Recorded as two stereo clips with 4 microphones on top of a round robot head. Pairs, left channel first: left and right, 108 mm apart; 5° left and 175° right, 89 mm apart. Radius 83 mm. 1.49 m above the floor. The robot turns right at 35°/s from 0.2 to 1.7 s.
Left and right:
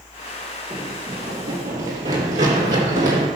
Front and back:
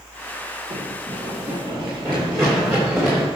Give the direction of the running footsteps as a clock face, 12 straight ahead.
6 o'clock.